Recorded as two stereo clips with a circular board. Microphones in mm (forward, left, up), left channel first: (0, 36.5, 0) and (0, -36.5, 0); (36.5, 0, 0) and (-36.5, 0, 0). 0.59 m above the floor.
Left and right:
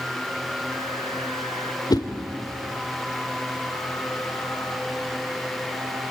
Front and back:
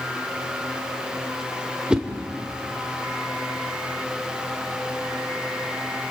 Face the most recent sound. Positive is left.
turn(degrees=100)